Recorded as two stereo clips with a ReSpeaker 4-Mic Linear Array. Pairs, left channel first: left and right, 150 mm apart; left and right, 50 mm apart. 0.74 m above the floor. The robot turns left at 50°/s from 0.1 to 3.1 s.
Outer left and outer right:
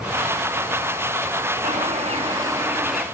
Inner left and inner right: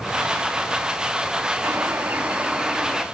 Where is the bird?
110° right, 0.9 m; by 3.0 s straight behind, 0.9 m.